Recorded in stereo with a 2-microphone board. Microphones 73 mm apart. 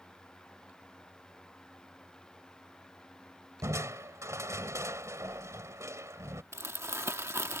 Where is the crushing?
45° right (ahead or behind).